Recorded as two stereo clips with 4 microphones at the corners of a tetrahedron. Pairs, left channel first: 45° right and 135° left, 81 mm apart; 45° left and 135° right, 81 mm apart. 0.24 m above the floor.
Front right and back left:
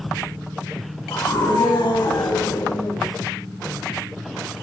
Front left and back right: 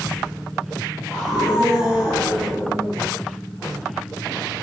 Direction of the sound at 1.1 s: 50° right.